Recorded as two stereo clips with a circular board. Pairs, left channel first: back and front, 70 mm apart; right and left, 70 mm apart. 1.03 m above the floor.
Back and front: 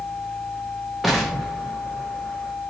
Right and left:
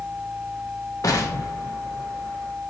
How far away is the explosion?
About 0.7 m.